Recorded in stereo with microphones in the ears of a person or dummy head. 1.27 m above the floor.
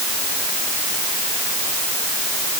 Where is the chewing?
No chewing in this recording.